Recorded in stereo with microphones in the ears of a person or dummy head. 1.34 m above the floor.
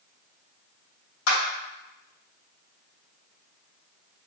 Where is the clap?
80° left, 1.6 m.